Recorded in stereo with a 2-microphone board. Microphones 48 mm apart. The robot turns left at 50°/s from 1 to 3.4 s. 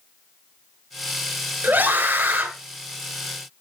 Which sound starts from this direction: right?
A scream, at 1.6 s.